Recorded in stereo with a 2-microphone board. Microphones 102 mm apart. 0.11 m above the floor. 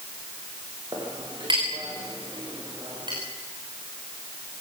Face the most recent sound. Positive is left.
turn(degrees=-45)  # may be behind; listen again after turning